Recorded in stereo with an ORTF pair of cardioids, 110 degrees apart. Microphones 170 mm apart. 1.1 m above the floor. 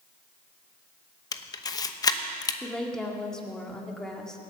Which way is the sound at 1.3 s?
25° left.